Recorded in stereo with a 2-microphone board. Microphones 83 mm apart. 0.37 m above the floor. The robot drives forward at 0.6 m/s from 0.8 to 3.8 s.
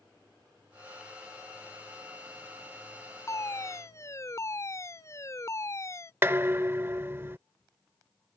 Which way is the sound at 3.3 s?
35° left (ahead or behind).